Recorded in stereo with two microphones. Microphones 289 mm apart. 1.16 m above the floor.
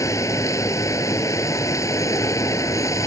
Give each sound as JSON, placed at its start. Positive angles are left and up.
{"t": 0.0, "sound": "running water", "side_deg": 10}